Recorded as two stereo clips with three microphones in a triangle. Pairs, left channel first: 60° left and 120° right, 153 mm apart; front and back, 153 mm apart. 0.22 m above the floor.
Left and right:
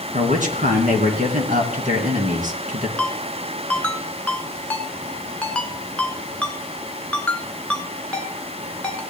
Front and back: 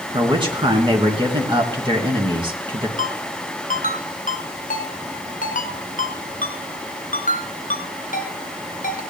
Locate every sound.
0.1 s a man speaking: 130° right, 2.5 m
3.0 s a ringtone: 25° right, 1.7 m